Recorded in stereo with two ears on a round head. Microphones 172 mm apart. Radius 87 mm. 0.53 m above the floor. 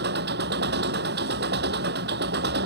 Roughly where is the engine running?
Right.